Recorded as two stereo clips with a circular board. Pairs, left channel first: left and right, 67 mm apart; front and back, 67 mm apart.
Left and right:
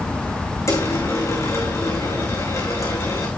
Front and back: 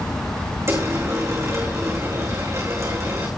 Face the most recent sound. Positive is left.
turn(degrees=135)